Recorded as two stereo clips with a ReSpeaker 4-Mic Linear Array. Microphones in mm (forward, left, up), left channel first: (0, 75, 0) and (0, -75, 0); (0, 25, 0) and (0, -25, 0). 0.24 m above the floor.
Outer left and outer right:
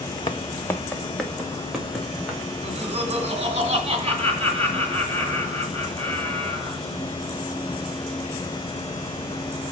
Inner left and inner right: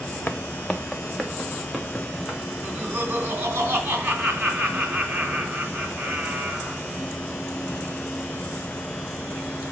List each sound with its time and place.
0.3 s footsteps: 35° left (ahead or behind), 0.7 m; by 2.4 s 5° right (ahead or behind), 2.5 m
2.6 s laughter: 45° right (ahead or behind), 2 m